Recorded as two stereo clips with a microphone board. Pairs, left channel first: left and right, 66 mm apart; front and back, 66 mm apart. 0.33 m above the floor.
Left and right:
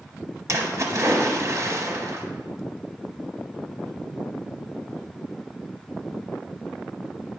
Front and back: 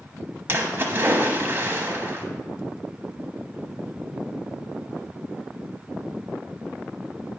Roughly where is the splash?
Behind right.